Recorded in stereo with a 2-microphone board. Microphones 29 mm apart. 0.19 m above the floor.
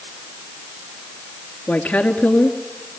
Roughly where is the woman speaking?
Left.